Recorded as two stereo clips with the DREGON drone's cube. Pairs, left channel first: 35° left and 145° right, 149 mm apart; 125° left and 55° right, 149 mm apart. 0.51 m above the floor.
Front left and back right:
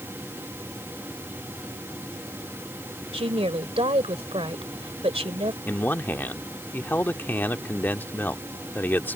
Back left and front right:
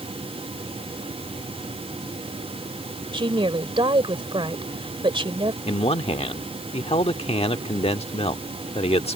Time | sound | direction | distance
3.1 | a woman speaking | 105° right | ?
5.7 | a man speaking | 105° left | ?